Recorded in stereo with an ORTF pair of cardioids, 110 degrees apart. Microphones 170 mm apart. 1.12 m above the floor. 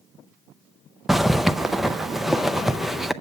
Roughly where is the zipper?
Ahead.